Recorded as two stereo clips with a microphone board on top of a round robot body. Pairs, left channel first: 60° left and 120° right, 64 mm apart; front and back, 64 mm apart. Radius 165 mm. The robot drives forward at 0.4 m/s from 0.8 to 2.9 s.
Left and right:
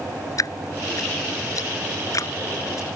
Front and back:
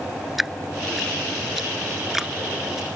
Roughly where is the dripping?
Left.